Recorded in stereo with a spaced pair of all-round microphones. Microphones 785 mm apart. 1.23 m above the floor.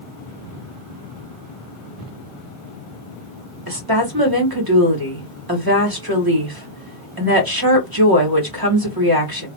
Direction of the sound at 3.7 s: 25° right (ahead or behind).